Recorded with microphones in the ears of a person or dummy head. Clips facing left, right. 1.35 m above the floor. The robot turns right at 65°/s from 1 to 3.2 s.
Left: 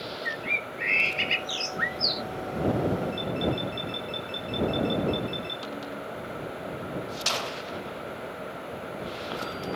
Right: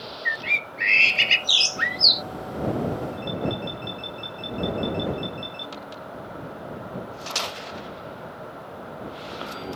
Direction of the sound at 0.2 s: 95° right.